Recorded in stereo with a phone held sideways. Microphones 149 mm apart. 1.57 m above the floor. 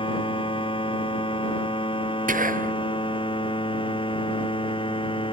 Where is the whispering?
65° right (ahead or behind).